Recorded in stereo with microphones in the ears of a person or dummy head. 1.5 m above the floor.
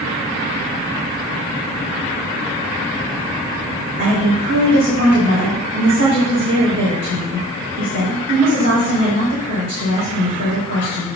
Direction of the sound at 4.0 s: 40° right (ahead or behind).